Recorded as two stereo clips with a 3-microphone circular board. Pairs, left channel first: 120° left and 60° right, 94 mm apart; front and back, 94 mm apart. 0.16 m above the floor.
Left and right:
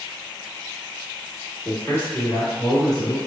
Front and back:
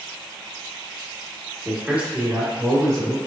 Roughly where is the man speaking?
Behind left.